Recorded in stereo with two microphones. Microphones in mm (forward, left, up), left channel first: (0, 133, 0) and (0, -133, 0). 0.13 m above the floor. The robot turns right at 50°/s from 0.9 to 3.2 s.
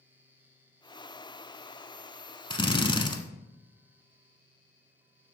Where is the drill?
20° left (ahead or behind), 0.8 m; by 3.2 s 15° left (ahead or behind), 0.8 m.